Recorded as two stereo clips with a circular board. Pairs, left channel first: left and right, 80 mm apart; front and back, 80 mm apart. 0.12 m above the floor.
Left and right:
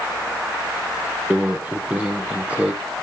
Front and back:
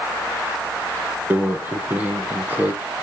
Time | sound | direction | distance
1.3 | a microwave | 140° right | 1.4 m